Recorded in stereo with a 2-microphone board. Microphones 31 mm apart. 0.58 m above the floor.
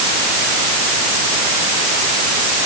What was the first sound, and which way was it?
Only background noise.